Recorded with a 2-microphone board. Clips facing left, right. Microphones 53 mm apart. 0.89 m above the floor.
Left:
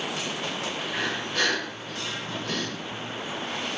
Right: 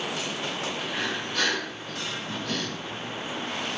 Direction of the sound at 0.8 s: 20° left (ahead or behind).